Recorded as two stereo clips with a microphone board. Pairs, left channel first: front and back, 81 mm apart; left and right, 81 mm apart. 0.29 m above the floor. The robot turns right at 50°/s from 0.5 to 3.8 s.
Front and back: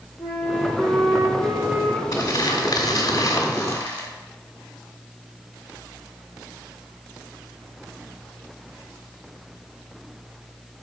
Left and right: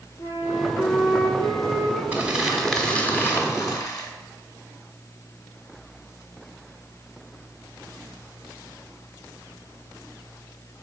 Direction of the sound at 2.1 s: 25° right.